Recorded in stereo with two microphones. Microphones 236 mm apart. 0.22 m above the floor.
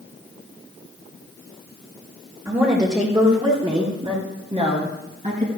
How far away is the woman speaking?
About 4.5 m.